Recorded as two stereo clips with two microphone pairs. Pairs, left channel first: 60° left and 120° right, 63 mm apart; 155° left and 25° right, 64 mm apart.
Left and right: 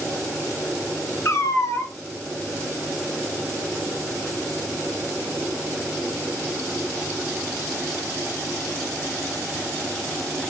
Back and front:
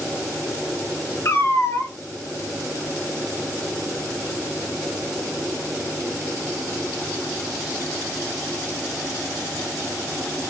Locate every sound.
1.2 s a cat meowing: 110° left, 0.5 m